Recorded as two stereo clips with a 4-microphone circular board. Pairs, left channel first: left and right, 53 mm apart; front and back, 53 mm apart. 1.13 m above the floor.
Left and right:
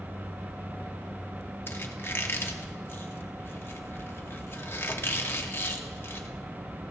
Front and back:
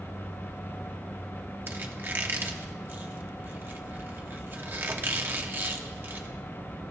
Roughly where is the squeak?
Behind left.